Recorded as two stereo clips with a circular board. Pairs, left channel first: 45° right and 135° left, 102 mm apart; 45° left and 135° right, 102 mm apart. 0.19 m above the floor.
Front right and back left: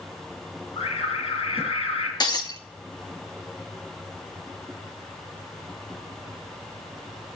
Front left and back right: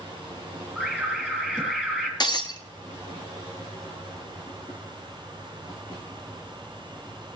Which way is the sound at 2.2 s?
Straight ahead.